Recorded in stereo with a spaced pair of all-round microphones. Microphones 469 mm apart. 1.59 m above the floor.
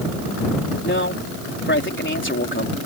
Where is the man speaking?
25° left (ahead or behind).